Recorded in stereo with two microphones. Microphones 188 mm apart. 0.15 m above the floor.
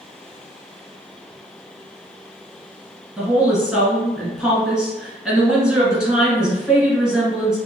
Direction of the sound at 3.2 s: 5° right (ahead or behind).